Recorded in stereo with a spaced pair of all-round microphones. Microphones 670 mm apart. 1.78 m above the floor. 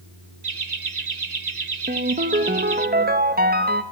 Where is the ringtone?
15° right (ahead or behind), 1.4 m.